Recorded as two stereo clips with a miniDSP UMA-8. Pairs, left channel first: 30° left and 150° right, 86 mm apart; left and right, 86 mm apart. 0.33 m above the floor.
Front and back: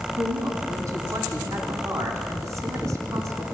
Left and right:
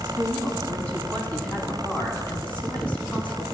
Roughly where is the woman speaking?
Behind.